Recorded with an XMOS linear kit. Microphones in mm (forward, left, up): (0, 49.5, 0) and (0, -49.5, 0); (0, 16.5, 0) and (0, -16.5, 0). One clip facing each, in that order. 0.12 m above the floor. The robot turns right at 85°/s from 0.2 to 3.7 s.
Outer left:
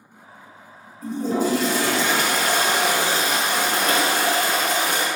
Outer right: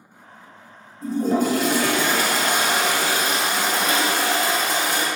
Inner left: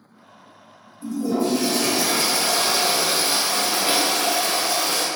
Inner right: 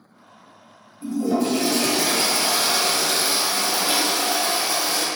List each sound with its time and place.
1.0 s a toilet flushing: 145° right, 1.4 m; by 5.1 s 80° left, 1.4 m